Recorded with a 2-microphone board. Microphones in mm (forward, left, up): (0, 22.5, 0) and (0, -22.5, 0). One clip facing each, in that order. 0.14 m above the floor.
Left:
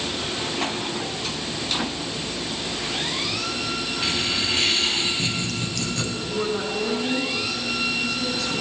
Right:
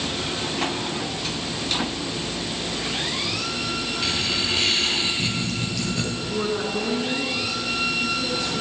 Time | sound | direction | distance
4.0 | laughter | 10° left (ahead or behind) | 4 m
6.2 | a woman speaking | 10° right (ahead or behind) | 1.7 m